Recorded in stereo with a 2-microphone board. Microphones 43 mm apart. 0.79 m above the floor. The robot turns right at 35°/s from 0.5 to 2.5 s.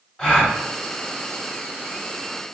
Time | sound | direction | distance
0.2 | a gasp | 20° left (ahead or behind) | 1.2 m